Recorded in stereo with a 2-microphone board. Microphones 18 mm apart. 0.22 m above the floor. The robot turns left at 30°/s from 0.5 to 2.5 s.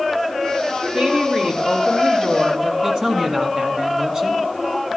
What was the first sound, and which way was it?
A woman speaking, 90° right.